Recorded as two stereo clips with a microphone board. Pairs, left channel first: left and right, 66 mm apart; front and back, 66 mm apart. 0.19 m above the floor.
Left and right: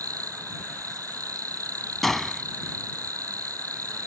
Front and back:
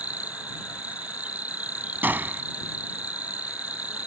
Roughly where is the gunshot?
Behind.